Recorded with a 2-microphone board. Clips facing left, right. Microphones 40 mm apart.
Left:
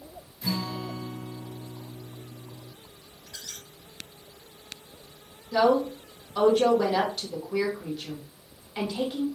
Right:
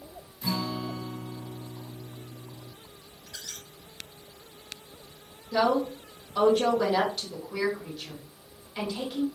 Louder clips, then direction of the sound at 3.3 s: Even; 15° right (ahead or behind).